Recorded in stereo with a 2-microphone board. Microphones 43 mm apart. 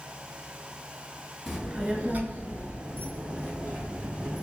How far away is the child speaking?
About 1.0 m.